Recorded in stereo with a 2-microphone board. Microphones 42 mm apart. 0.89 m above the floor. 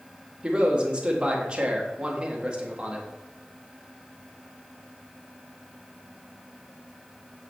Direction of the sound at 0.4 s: 25° right (ahead or behind).